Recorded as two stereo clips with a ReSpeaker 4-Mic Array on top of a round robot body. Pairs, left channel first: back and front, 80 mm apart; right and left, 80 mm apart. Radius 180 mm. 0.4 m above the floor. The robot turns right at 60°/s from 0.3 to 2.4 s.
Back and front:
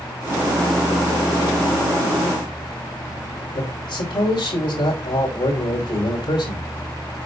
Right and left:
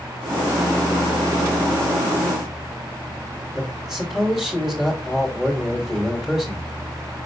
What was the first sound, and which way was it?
A man speaking, 175° left.